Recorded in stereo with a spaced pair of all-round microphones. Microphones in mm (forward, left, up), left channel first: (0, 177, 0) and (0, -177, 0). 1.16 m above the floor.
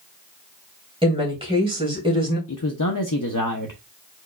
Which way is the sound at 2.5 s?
60° left (ahead or behind).